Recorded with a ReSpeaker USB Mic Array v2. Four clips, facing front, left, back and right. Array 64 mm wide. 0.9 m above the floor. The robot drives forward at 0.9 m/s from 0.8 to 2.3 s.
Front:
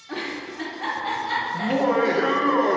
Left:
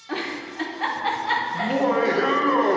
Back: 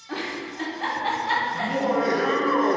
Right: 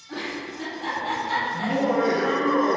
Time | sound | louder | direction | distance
0.1 | a giggle | left 2 dB, even | 95° left | 1.4 m
1.5 | laughter | left 2 dB, front 2 dB | 30° left | 1.3 m